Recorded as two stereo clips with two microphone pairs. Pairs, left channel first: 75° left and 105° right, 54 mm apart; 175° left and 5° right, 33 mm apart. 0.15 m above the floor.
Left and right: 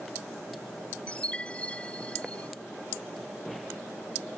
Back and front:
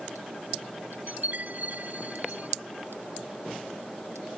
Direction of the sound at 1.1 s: 10° left.